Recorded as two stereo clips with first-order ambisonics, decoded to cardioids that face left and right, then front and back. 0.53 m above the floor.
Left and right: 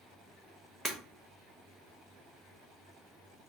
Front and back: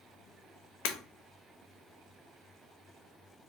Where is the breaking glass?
15° right, 0.6 m.